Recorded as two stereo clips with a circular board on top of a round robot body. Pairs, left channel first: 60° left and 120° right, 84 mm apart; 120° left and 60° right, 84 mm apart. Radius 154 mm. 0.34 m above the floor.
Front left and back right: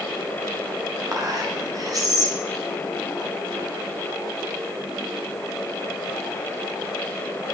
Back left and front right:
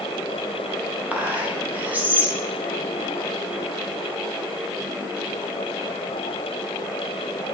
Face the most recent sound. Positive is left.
turn(degrees=-120)